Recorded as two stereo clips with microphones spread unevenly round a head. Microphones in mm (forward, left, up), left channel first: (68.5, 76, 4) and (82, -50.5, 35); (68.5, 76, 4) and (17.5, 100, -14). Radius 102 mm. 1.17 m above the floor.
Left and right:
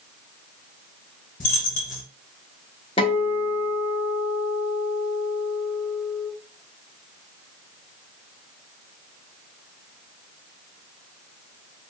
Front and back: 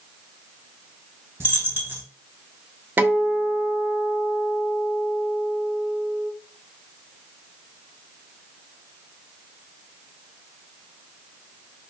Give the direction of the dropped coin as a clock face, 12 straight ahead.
9 o'clock.